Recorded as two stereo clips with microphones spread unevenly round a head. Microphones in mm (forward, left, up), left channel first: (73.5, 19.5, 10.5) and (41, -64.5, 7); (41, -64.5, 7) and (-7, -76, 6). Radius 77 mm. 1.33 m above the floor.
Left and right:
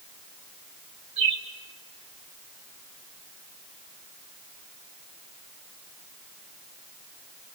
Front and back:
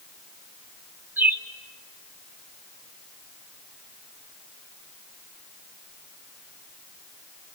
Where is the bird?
125° right, 2.5 m.